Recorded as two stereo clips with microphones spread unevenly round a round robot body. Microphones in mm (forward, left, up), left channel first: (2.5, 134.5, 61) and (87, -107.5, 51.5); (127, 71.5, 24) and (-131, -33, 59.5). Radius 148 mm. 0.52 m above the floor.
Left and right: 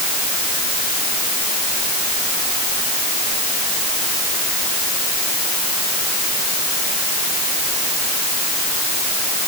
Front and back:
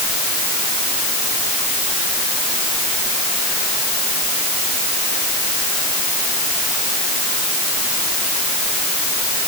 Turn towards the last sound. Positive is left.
No sound to turn to.